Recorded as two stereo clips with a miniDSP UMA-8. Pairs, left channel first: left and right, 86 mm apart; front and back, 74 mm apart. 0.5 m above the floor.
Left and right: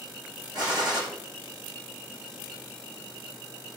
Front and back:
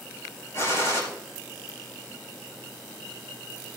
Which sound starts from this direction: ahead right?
A gunshot, at 0.5 s.